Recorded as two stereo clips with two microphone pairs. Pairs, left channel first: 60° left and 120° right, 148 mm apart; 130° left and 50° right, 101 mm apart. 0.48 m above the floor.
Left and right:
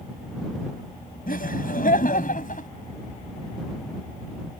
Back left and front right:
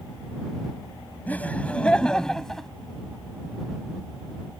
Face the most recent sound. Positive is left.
turn(degrees=40)